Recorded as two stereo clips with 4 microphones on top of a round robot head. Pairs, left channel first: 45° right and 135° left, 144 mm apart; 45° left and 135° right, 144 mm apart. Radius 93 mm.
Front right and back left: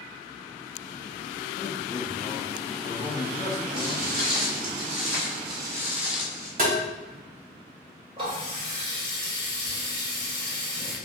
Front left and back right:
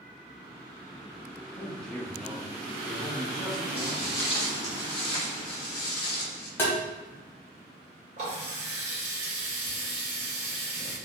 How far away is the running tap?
About 1.6 m.